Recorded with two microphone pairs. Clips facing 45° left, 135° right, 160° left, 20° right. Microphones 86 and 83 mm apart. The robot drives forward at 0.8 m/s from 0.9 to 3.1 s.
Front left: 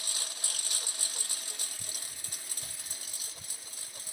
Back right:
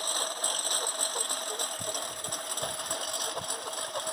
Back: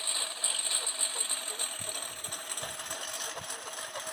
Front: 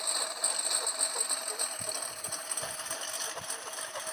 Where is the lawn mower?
95° right; by 4.1 s 110° right.